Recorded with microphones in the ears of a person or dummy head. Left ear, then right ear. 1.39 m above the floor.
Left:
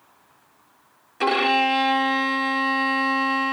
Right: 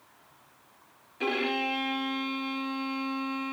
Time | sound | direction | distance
1.2 | a violin | 35° left (ahead or behind) | 0.6 m